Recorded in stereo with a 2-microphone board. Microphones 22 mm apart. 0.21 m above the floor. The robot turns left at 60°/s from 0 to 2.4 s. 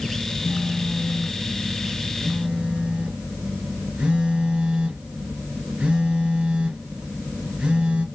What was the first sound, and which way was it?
A phone buzzing, 55° left.